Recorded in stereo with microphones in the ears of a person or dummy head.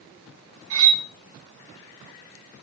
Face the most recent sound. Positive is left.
turn(degrees=-70)  # may be behind; listen again after turning